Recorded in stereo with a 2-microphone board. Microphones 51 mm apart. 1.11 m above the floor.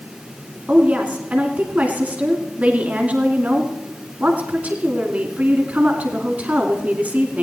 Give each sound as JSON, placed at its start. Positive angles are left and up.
{"t": 0.7, "sound": "a woman speaking", "side_deg": -25, "distance_m": 2.5}